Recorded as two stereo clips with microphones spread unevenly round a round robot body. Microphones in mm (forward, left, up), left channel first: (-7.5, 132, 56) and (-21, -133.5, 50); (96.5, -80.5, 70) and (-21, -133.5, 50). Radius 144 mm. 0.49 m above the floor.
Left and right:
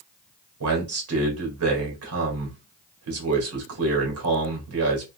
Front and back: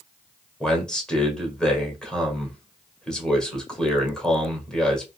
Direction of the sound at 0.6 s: 65° right.